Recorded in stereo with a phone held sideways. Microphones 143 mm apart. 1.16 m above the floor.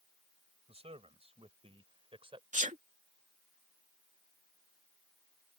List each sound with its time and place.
0.7 s a man speaking: 45° right (ahead or behind); by 2.4 s 40° right (ahead or behind)
2.5 s a sneeze: 60° right (ahead or behind)